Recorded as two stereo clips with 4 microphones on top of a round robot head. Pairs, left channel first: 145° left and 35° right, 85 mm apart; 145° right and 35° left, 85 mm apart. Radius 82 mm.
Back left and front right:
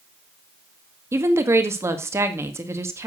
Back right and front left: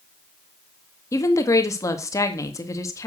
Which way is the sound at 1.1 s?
95° right.